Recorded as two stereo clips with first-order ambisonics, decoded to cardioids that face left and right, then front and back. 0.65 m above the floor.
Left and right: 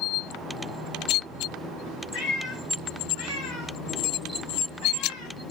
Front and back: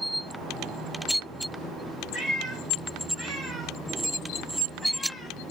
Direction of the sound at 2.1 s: 115° left.